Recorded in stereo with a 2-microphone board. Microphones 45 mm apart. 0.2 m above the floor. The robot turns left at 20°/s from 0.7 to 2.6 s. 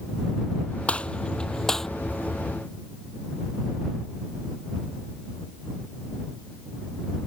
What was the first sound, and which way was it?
A gunshot, 25° left (ahead or behind).